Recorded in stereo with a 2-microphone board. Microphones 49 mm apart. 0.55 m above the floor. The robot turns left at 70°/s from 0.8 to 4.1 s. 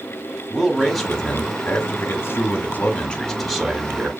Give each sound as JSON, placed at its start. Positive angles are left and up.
{"t": 0.5, "sound": "a man speaking", "azimuth_deg": -175, "distance_m": 1.7}